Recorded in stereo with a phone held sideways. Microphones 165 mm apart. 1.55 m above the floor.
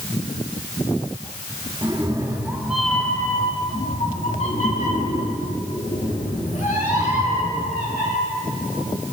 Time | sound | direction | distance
1.8 | a cat meowing | 30° right (ahead or behind) | 1.4 m